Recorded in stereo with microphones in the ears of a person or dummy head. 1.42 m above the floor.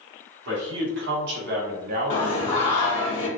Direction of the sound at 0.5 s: 75° right (ahead or behind).